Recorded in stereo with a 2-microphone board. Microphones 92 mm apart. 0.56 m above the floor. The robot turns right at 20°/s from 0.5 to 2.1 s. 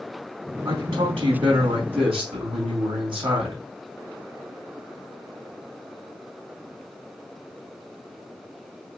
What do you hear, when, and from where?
0.7 s a man speaking: 70° right (ahead or behind), 4 m; by 3.6 s 75° right (ahead or behind), 4 m